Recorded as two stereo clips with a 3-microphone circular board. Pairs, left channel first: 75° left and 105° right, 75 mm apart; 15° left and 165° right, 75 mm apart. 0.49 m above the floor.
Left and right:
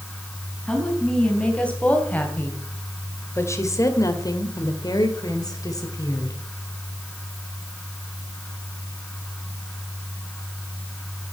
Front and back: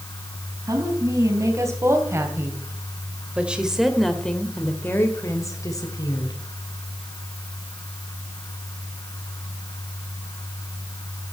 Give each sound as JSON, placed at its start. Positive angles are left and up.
{"t": 0.7, "sound": "a woman speaking", "azimuth_deg": 155, "distance_m": 4.5}